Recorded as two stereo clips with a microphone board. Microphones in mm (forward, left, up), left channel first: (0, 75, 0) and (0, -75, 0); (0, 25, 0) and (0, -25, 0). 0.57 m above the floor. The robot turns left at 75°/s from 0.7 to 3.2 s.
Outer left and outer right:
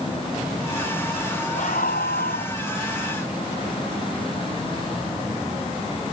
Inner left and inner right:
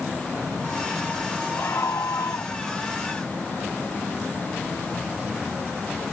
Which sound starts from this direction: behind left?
A scream, at 1.6 s.